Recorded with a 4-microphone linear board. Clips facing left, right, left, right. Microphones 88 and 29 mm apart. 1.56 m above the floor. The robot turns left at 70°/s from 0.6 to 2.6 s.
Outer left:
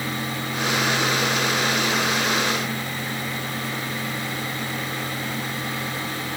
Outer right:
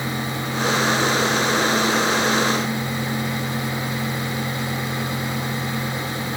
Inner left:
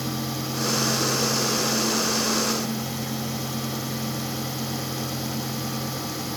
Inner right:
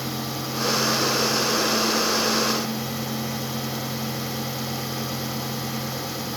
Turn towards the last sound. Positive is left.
No sound to turn to.